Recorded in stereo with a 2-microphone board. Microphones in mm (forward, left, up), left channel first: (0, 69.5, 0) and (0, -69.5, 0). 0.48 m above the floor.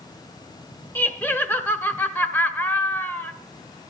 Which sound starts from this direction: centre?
Laughter, at 0.9 s.